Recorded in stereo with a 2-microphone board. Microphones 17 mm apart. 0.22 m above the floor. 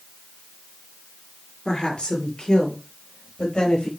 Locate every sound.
1.6 s a woman speaking: 70° left (ahead or behind), 4.5 m; by 3.9 s 75° left (ahead or behind), 5.5 m